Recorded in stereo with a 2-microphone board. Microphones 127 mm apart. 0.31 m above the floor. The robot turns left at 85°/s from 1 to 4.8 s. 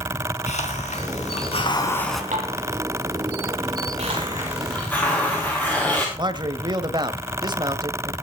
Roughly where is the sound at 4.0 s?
Behind right.